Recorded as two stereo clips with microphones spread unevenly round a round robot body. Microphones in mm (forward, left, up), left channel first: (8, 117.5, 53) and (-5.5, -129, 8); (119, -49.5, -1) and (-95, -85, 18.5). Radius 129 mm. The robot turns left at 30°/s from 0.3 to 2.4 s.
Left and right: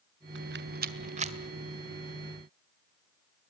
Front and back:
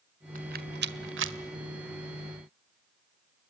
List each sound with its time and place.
0.3 s a rattle: 120° right, 1.6 m; by 1.4 s 150° right, 1.6 m